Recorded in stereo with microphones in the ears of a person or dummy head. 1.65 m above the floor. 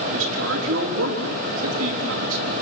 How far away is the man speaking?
About 3.5 m.